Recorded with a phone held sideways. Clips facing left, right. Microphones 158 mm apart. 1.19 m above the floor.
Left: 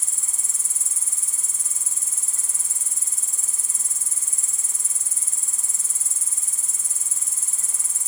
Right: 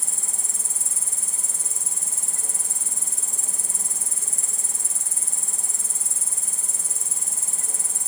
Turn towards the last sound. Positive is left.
turn(degrees=-65)  # may be behind; listen again after turning